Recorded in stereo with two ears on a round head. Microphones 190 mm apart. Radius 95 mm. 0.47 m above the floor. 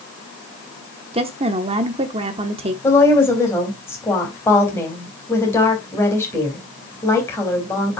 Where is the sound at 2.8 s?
10° left (ahead or behind), 3.5 m.